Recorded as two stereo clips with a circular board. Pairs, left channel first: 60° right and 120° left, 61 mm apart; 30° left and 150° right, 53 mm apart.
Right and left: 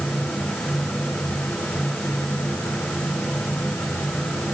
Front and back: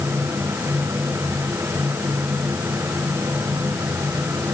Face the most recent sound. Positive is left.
No sound to turn to.